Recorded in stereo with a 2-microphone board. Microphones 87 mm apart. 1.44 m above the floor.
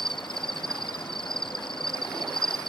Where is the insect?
70° left (ahead or behind).